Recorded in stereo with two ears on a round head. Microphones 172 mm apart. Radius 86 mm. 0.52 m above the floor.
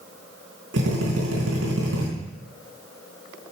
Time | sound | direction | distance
0.7 | a drill | 70° right (ahead or behind) | 4.5 m